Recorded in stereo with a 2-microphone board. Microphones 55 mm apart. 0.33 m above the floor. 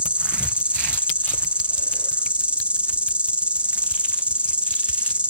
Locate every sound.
0.0 s an insect: 20° right (ahead or behind), 1.0 m